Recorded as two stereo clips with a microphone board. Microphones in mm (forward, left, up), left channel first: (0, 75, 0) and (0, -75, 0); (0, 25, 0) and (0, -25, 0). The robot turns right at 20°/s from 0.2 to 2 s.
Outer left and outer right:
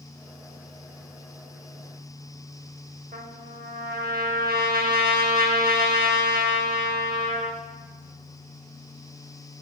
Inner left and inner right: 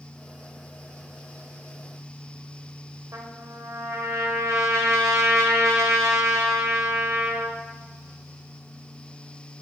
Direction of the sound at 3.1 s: 80° right.